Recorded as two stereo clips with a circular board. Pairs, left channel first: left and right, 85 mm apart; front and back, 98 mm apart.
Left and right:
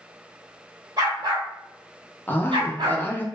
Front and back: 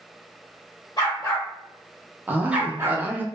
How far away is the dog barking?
About 1.1 m.